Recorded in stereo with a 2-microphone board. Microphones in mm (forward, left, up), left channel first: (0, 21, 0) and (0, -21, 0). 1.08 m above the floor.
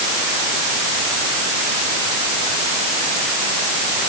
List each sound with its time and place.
Only background noise.